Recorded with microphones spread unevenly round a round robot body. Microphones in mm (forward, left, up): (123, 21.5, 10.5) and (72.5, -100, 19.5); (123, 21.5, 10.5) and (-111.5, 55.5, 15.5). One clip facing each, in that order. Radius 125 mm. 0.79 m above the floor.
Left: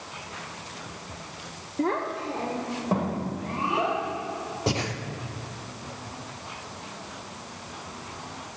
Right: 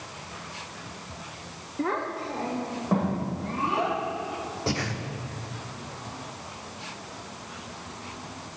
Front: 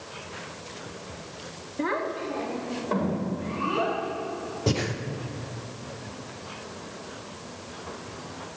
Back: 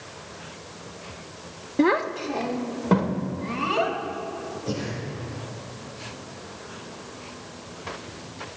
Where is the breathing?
Straight ahead, 1.0 m.